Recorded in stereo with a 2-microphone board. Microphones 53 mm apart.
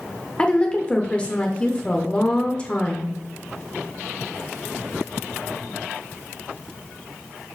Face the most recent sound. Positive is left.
turn(degrees=20)  # may be behind; listen again after turning